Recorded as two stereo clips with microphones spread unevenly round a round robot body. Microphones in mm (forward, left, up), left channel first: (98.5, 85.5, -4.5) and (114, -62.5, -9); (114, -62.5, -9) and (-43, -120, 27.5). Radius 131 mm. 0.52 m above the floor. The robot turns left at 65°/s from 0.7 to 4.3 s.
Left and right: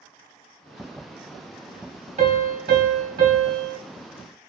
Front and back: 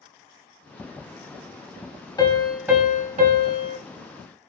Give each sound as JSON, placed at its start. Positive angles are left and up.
{"t": 2.2, "sound": "a piano", "azimuth_deg": -50, "distance_m": 1.2}